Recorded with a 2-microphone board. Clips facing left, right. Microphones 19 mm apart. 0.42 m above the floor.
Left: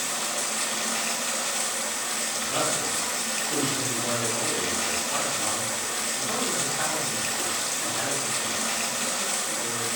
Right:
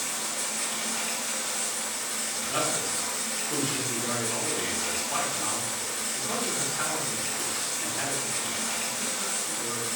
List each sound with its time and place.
0.0 s running water: 60° left (ahead or behind), 0.7 m
2.4 s a man speaking: 10° right (ahead or behind), 0.9 m